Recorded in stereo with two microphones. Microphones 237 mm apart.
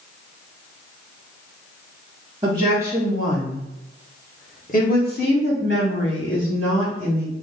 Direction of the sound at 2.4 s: 20° right (ahead or behind).